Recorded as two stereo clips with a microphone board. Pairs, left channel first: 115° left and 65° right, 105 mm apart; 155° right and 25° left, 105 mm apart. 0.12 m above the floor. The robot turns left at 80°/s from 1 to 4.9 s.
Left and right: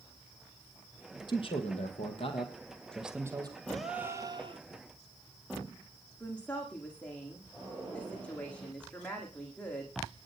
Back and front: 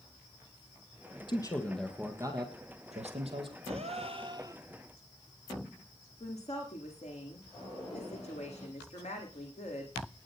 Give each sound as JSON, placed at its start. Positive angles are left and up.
{"t": 1.3, "sound": "a man speaking", "azimuth_deg": 160, "distance_m": 4.0}
{"t": 3.7, "sound": "a gasp", "azimuth_deg": 30, "distance_m": 1.4}
{"t": 6.2, "sound": "a woman speaking", "azimuth_deg": -170, "distance_m": 9.0}